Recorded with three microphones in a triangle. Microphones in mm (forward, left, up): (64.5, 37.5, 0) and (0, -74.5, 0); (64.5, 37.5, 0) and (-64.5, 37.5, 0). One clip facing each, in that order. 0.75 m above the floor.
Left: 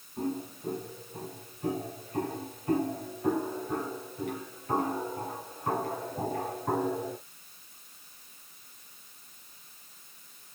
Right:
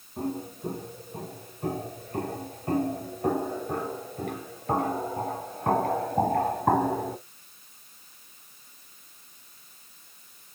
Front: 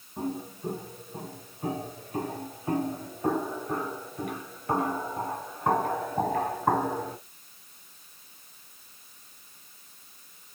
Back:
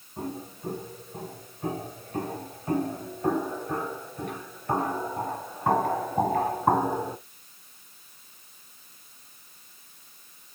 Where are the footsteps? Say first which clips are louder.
Right 1 dB, front 2 dB; 75° right, 5.5 m; by 7.2 s 100° right, 1.8 m.